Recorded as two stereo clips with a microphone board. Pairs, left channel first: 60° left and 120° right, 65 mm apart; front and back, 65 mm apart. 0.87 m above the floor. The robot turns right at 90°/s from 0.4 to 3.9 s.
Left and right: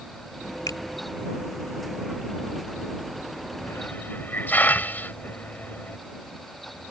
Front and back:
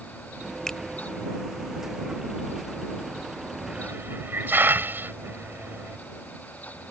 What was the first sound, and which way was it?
A finger snap, 80° left.